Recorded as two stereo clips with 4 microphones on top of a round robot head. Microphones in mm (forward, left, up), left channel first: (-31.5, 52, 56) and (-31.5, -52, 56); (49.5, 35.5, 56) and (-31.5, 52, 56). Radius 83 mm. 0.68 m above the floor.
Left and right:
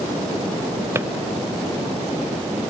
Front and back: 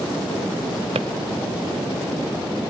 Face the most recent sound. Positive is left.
turn(degrees=-155)